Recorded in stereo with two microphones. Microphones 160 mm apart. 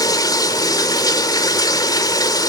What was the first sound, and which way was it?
Running water, 25° left (ahead or behind).